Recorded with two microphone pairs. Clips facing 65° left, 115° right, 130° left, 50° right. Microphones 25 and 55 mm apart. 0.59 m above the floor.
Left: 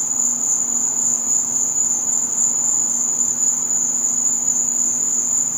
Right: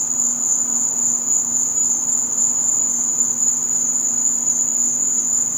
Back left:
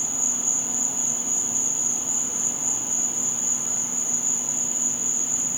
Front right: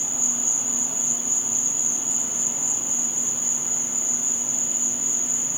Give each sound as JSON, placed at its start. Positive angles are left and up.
{"t": 0.0, "sound": "an insect", "azimuth_deg": 30, "distance_m": 1.3}